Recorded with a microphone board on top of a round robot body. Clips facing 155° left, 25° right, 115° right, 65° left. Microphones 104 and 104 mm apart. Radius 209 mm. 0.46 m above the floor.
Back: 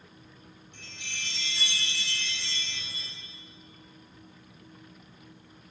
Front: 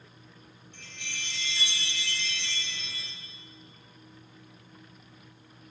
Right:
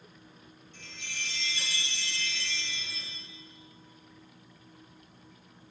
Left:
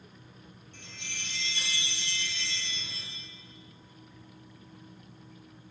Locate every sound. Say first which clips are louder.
0.7 s a chime: front 2 dB, right 2 dB; 85° left, 1.9 m